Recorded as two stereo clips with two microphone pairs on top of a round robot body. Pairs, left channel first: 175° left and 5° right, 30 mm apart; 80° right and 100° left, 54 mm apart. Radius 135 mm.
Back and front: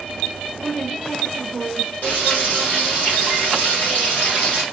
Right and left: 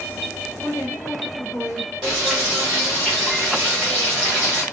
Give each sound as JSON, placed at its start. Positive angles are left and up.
{"t": 0.6, "sound": "a woman speaking", "azimuth_deg": -110, "distance_m": 1.4}
{"t": 2.0, "sound": "frying", "azimuth_deg": 180, "distance_m": 0.9}